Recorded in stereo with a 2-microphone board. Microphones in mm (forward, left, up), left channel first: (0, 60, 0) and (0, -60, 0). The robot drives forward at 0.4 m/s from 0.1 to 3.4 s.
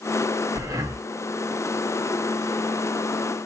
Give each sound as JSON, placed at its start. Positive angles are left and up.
{"t": 0.6, "sound": "breathing", "side_deg": -25, "distance_m": 1.1}